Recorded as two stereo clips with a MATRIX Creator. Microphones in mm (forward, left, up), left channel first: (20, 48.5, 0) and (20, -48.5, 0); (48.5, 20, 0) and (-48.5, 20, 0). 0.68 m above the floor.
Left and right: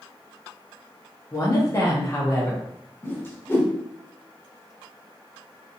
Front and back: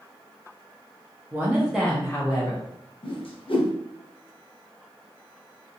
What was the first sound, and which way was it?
A woman speaking, 125° left.